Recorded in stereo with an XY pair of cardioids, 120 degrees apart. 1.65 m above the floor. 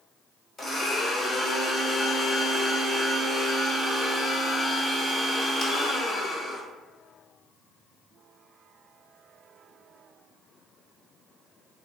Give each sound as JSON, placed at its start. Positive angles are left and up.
{"t": 0.6, "sound": "a blender", "azimuth_deg": 35, "distance_m": 1.2}